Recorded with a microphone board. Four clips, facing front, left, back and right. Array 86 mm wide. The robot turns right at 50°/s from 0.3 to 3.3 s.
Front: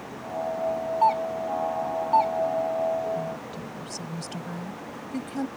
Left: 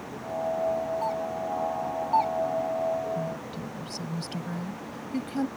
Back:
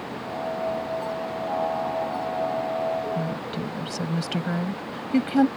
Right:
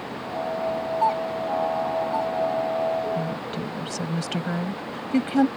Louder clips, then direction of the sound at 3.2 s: Right 5 dB, back 4 dB; 140° right.